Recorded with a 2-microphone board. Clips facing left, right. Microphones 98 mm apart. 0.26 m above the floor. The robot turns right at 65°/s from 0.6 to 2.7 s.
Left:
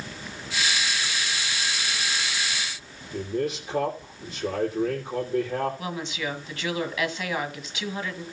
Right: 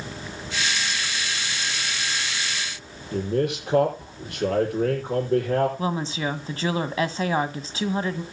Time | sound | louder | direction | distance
3.1 | a man speaking | right 4 dB | 70° right (ahead or behind) | 9.5 m
5.8 | a woman speaking | right 5 dB | 35° right (ahead or behind) | 1.6 m